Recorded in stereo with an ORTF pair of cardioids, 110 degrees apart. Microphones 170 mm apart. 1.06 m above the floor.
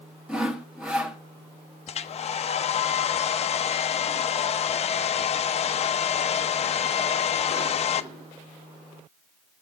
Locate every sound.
0.3 s sawing: 5° right, 1.4 m
1.9 s a hair dryer: 40° left, 0.6 m